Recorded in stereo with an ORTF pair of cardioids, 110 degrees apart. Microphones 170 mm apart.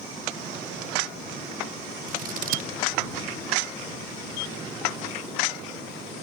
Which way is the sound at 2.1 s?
55° right.